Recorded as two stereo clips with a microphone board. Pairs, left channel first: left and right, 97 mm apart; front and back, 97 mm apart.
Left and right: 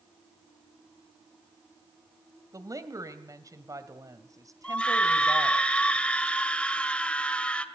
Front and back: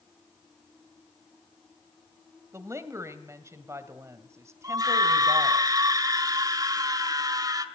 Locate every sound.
2.5 s a woman speaking: 130° right, 2 m
4.6 s a scream: 165° left, 1.7 m